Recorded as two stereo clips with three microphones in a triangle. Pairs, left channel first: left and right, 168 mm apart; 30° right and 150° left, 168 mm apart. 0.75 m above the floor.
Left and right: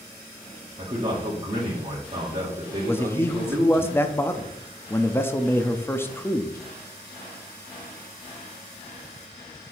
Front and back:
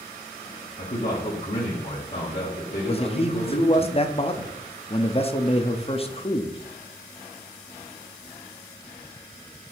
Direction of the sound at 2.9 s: 15° left.